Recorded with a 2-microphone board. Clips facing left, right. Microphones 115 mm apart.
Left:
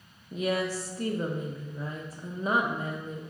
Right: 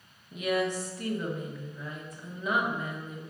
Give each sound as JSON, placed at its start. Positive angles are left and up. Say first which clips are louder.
{"t": 0.3, "sound": "a woman speaking", "louder": "even", "side_deg": 30, "distance_m": 0.6}